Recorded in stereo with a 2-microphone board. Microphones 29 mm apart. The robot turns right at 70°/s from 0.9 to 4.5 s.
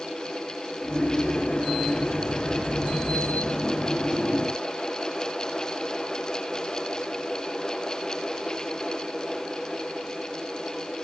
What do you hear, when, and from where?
Only background noise.